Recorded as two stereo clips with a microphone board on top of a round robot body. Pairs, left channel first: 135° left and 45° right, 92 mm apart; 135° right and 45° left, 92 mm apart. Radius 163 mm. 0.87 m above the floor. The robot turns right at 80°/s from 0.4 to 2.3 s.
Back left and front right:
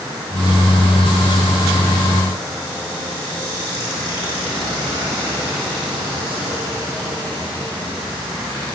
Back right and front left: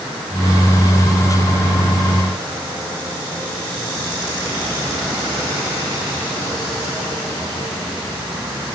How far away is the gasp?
I don't hear a gasp.